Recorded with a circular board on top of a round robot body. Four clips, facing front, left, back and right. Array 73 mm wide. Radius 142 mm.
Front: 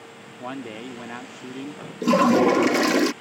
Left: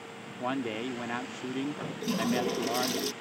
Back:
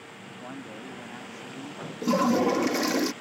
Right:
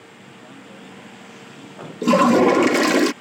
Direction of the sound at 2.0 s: 70° right.